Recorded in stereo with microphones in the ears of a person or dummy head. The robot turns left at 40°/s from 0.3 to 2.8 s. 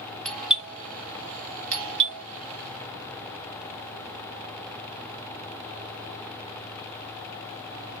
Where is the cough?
I don't hear a cough.